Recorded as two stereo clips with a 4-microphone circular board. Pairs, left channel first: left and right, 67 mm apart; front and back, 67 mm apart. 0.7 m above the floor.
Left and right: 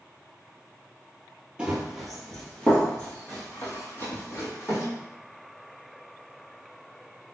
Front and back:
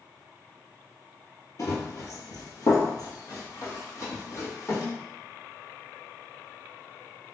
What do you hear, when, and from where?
1.6 s running footsteps: 20° right, 1.1 m; by 4.9 s 45° left, 2 m